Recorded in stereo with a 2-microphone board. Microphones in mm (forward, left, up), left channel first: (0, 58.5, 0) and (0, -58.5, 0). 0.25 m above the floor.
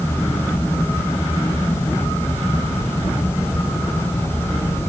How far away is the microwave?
I don't hear a microwave.